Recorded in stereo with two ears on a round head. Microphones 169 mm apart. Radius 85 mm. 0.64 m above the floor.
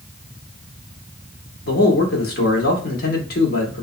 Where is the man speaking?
55° left (ahead or behind), 1.1 m.